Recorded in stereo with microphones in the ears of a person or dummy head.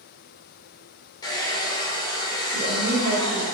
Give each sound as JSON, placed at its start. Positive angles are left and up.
{"t": 1.2, "sound": "a hair dryer", "side_deg": 25, "distance_m": 0.5}
{"t": 2.5, "sound": "a woman speaking", "side_deg": -50, "distance_m": 1.3}